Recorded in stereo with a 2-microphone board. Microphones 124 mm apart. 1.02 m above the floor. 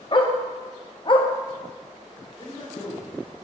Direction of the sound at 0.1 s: 40° left (ahead or behind).